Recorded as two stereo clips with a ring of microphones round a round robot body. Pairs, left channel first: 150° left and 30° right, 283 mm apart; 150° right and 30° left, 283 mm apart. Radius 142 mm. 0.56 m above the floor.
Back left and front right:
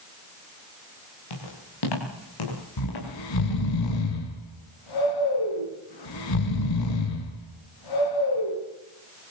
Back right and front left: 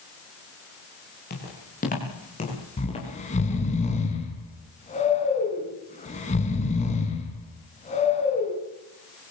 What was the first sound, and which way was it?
Footsteps, 150° left.